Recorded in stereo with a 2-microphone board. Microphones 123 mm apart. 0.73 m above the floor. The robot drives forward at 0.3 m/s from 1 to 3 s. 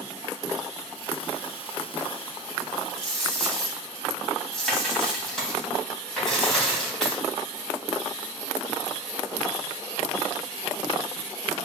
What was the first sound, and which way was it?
A dropped coin, 5° left (ahead or behind).